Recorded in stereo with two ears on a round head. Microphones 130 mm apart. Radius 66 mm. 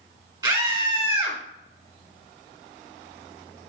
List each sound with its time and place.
0.4 s a scream: 30° right (ahead or behind), 2 m